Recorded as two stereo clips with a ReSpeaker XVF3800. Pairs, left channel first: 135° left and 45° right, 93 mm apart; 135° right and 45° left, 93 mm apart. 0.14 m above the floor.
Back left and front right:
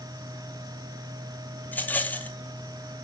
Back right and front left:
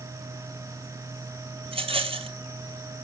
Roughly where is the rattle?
Ahead left.